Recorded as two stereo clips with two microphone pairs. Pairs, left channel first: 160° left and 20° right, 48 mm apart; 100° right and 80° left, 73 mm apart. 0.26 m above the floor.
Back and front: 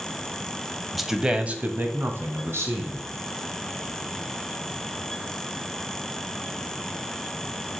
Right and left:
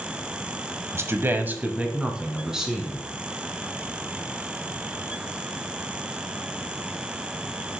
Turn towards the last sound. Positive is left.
turn(degrees=-5)